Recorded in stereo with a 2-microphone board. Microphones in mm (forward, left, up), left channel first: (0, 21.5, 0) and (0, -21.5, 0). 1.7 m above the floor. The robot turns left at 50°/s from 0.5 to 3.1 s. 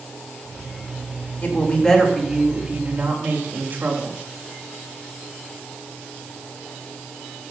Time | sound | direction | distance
1.4 | a woman speaking | 40° left | 3.5 m